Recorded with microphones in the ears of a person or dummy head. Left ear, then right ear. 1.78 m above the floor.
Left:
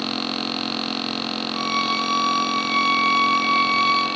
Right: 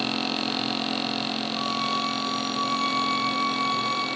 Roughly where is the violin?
Left.